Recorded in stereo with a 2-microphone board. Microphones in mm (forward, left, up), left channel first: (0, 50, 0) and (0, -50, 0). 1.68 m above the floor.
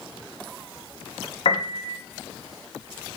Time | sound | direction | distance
1.4 | a piano | 75° left (ahead or behind) | 0.5 m